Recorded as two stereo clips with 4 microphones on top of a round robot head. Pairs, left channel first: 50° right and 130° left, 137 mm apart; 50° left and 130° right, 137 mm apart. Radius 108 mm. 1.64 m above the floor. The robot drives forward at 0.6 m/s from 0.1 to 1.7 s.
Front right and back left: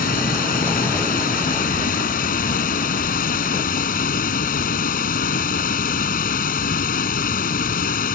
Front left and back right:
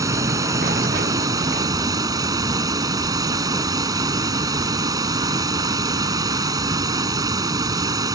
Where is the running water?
65° right.